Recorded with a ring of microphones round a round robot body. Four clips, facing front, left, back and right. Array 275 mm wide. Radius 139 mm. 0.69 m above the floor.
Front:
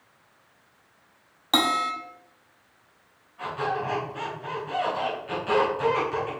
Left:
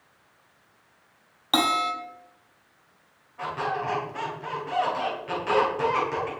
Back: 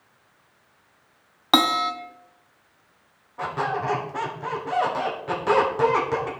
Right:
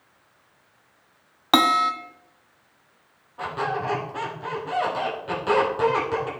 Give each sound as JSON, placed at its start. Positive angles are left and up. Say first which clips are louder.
{"t": 1.5, "sound": "a bell", "louder": "right 5 dB, back 3 dB", "azimuth_deg": -130, "distance_m": 0.8}
{"t": 3.4, "sound": "a squeak", "louder": "right 2 dB, back 2 dB", "azimuth_deg": -160, "distance_m": 1.9}